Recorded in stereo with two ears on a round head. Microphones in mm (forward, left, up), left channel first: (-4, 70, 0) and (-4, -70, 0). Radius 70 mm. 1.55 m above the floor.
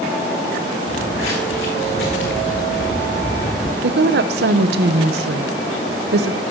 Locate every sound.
0.9 s footsteps: 65° left (ahead or behind), 4.5 m; by 3.7 s 75° left (ahead or behind), 5.5 m
3.8 s a woman speaking: 70° right (ahead or behind), 0.9 m